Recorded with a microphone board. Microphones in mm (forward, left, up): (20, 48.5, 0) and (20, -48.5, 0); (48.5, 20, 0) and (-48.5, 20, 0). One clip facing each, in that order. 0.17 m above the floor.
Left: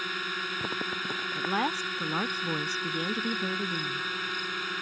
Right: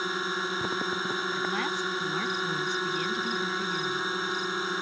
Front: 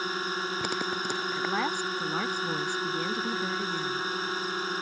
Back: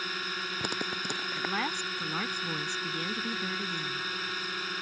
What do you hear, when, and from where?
0.0 s a drone: 40° right
1.4 s a woman speaking: 70° left